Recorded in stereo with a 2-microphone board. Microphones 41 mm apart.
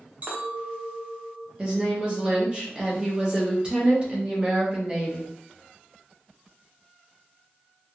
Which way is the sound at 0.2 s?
50° right (ahead or behind).